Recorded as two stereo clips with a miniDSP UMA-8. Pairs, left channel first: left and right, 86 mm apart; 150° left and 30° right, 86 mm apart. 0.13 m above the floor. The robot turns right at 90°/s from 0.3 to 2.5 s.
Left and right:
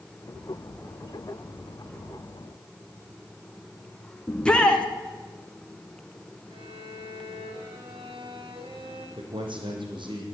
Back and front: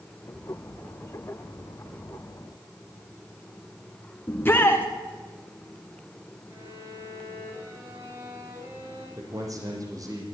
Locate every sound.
4.3 s a shout: 145° left, 1.7 m
6.5 s a violin: 90° right, 6.5 m
9.2 s a man speaking: 75° right, 6 m